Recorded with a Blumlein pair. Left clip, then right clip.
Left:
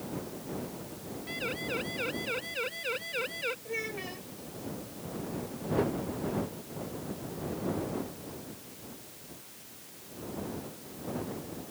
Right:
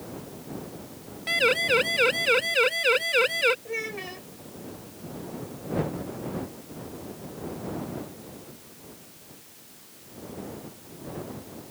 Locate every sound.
1.3 s a siren: 55° right; by 3.5 s 60° right
3.6 s a child speaking: 15° right